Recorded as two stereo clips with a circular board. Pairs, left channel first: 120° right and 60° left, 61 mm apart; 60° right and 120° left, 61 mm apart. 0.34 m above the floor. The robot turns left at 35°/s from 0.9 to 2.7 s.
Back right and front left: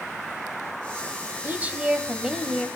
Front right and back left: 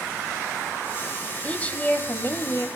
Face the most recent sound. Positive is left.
turn(degrees=-35)